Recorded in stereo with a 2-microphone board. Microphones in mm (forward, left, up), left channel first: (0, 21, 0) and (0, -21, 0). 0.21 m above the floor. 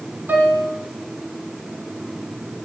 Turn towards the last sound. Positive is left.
turn(degrees=-50)  # may be behind; listen again after turning